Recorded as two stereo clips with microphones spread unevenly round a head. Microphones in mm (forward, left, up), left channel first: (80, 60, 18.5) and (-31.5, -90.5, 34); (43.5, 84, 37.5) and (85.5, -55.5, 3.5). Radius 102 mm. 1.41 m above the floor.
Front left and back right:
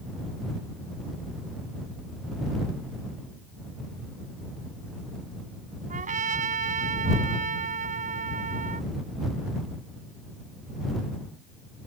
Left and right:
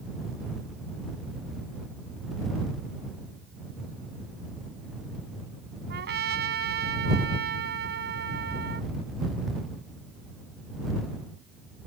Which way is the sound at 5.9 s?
75° right.